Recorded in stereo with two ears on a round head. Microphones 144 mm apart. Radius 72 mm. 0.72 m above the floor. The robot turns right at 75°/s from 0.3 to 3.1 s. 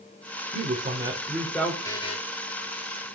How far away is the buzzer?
About 1.2 m.